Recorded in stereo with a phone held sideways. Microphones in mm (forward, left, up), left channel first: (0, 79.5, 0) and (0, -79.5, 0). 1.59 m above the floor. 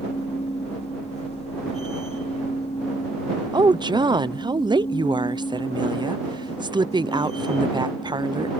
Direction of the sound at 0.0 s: 40° left (ahead or behind).